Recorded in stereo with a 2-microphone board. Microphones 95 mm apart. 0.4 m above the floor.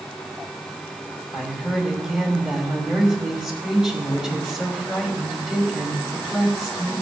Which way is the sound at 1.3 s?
5° right (ahead or behind).